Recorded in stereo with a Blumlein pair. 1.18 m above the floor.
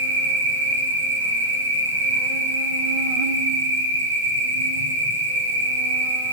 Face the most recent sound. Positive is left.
turn(degrees=-65)